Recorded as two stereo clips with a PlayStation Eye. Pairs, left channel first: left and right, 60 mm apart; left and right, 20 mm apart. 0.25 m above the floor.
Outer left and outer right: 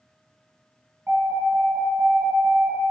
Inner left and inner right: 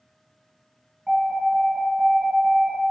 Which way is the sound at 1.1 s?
45° right (ahead or behind).